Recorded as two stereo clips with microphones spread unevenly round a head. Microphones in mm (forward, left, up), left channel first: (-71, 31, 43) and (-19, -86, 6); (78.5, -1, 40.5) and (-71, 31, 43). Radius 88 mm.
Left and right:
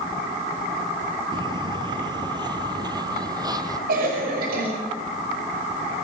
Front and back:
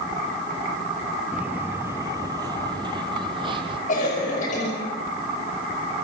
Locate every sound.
1.3 s footsteps: 120° right, 1.3 m; by 3.8 s 135° right, 2.5 m
3.9 s a cough: 55° right, 5.5 m